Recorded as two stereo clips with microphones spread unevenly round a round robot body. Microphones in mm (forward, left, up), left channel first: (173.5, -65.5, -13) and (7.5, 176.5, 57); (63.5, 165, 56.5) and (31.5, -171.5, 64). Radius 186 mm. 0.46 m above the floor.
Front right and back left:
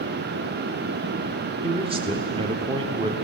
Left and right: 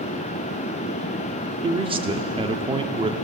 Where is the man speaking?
155° right, 1.3 m.